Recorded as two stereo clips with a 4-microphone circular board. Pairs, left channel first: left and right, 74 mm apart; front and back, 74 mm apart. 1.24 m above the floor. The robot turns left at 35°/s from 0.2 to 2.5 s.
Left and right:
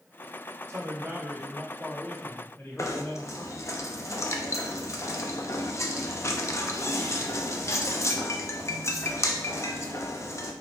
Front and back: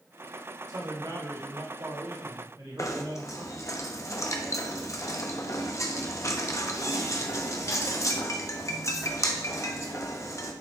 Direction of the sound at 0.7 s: 145° right.